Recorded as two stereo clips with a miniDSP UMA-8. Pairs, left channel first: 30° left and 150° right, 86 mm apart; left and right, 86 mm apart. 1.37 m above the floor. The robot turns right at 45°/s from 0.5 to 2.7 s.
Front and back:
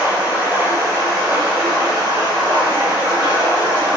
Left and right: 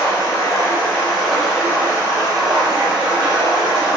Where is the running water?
140° left, 0.9 m; by 4.0 s 120° right, 0.9 m.